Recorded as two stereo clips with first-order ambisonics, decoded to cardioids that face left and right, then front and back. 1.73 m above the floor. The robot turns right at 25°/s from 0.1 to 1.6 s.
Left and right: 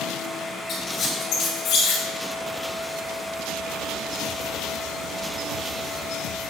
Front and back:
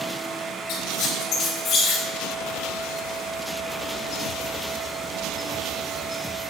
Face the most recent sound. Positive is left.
turn(degrees=55)